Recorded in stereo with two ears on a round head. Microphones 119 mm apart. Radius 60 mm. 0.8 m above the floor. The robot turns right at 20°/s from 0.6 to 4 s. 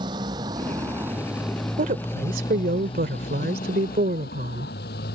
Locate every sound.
0.0 s a motorcycle: 30° right (ahead or behind); by 5.2 s 90° left
1.8 s a woman speaking: 115° right; by 4.7 s 70° right